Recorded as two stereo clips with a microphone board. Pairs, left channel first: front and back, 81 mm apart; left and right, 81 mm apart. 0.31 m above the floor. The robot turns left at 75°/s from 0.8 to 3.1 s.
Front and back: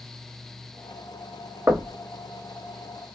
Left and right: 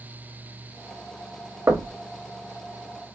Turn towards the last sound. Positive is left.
turn(degrees=120)